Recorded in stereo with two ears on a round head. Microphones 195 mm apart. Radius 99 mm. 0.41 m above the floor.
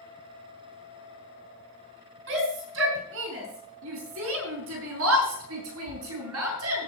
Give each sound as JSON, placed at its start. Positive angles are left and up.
{"t": 2.3, "sound": "a shout", "side_deg": -60, "distance_m": 5.0}